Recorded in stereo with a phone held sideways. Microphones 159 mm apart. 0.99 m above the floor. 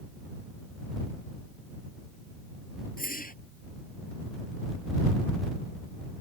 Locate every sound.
3.0 s a whoosh: 65° left (ahead or behind)